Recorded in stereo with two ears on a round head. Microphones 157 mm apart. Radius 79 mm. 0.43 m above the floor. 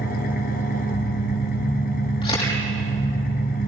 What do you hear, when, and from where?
0.0 s an engine running: 55° left (ahead or behind), 2 m
2.2 s a camera shutter: 30° left (ahead or behind), 5.5 m